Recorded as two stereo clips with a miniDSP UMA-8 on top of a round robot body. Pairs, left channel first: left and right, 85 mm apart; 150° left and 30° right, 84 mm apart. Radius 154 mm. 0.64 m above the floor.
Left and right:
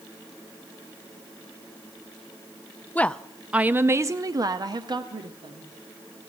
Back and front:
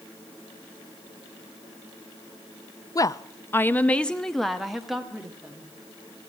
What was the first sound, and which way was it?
A woman speaking, 155° left.